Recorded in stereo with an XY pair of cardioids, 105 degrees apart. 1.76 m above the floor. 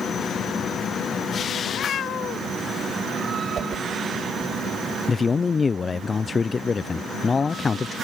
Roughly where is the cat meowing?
Ahead left.